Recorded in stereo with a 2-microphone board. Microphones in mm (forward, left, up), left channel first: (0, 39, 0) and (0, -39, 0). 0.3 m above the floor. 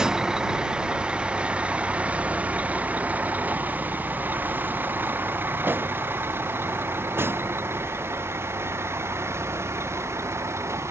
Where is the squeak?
I don't hear a squeak.